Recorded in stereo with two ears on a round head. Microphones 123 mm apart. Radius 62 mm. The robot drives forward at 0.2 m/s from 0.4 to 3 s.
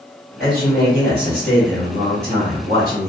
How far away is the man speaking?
About 1.5 m.